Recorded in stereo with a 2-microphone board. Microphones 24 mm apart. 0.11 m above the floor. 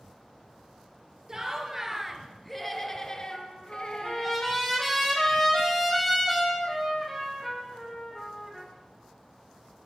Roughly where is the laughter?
Right.